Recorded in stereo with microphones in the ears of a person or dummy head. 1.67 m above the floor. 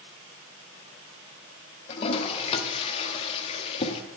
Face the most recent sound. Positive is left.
turn(degrees=30)  # may be behind; listen again after turning